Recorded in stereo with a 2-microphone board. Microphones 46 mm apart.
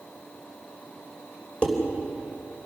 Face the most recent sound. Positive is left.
turn(degrees=25)  # may be behind; listen again after turning